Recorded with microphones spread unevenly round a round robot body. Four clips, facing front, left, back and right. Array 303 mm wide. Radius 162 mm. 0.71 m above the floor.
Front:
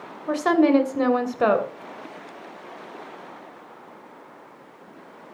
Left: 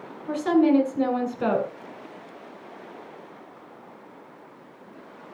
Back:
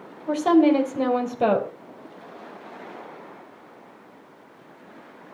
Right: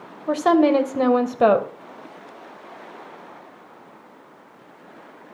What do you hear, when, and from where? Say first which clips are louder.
0.3 s a woman speaking: right 3 dB, back 1 dB; 75° right, 3 m